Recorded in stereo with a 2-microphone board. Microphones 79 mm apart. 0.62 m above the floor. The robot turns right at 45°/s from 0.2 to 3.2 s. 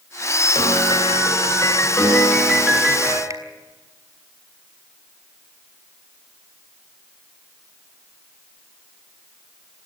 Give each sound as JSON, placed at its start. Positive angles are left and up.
{"t": 0.6, "sound": "a piano", "azimuth_deg": 85, "distance_m": 7.5}
{"t": 3.3, "sound": "a finger snap", "side_deg": -45, "distance_m": 3.5}